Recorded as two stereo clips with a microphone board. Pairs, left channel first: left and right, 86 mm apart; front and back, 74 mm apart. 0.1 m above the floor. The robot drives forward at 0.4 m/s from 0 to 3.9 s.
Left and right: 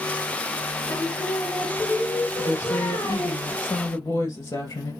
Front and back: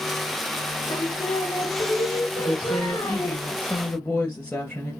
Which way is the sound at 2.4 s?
50° left.